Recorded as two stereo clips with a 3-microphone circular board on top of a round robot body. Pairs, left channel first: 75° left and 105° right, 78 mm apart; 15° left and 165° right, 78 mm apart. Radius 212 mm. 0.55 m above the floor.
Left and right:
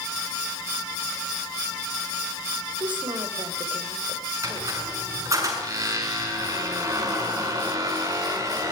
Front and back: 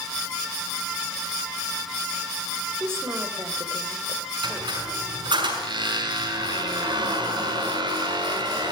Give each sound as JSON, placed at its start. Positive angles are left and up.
{"t": 2.8, "sound": "a woman speaking", "azimuth_deg": -105, "distance_m": 3.5}
{"t": 4.4, "sound": "a squeak", "azimuth_deg": -150, "distance_m": 6.0}